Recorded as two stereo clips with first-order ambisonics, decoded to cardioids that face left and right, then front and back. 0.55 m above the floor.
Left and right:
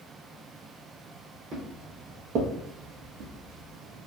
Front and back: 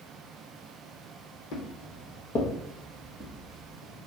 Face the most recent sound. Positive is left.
turn(degrees=-105)